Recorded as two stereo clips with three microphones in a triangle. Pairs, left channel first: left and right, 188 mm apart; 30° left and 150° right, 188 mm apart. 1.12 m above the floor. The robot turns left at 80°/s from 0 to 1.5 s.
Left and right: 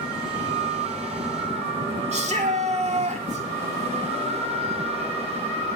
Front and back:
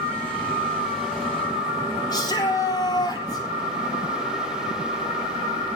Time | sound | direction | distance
2.1 | a shout | 40° right | 4 m